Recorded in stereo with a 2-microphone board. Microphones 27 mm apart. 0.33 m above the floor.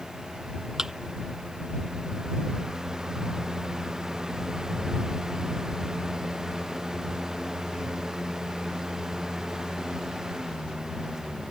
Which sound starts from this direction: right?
A thud, at 0.8 s.